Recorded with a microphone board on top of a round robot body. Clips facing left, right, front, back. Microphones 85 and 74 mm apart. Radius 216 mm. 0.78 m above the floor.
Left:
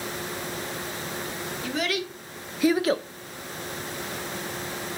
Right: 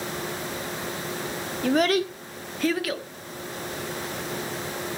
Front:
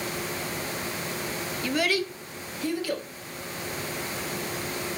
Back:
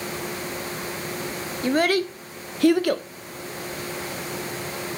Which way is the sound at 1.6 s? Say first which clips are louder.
Right 8 dB, back 6 dB; 125° right.